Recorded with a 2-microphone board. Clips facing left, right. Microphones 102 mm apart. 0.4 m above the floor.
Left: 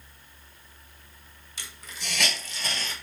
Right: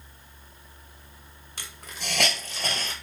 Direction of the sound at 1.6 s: 55° right (ahead or behind).